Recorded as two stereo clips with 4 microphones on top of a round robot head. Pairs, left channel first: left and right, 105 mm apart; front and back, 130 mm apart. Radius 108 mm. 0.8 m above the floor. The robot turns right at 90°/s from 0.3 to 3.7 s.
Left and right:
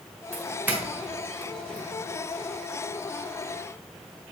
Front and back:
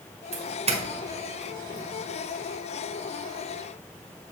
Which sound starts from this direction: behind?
A doorbell, at 0.3 s.